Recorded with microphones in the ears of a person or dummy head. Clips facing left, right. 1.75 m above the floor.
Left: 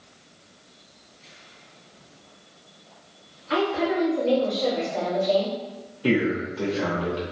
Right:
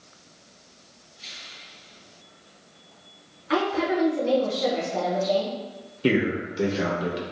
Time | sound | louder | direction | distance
3.5 | a woman speaking | even | 60° right (ahead or behind) | 1.5 m
6.0 | a man speaking | even | 20° right (ahead or behind) | 0.7 m